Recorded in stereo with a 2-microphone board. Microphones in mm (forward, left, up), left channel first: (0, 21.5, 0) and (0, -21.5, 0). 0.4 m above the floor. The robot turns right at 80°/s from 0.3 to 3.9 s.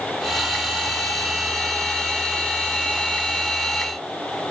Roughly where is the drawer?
No drawer in this recording.